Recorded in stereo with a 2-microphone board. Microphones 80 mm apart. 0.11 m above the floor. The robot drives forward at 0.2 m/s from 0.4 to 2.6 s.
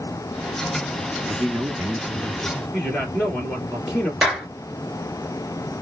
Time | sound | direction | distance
1.3 | a man speaking | 25° right (ahead or behind) | 1.1 m
2.7 | a man speaking | 5° right (ahead or behind) | 1.6 m
4.2 | a clap | 5° right (ahead or behind) | 1.8 m